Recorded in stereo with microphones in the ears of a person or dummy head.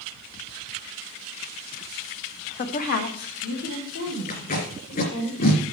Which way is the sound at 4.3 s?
45° left (ahead or behind).